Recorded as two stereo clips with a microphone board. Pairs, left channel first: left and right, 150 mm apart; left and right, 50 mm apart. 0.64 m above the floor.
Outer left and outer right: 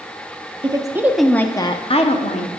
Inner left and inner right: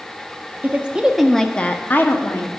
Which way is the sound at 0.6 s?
35° right (ahead or behind).